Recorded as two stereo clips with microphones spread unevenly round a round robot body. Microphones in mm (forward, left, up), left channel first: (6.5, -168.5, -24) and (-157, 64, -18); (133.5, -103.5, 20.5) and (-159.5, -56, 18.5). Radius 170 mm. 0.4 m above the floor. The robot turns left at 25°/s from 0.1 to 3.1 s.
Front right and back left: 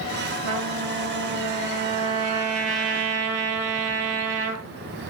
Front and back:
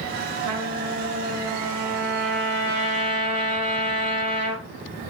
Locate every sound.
0.4 s a trumpet: 125° left, 4 m; by 4.7 s 60° left, 4 m